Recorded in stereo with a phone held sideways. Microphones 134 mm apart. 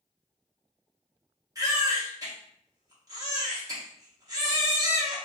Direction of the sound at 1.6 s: 25° right (ahead or behind).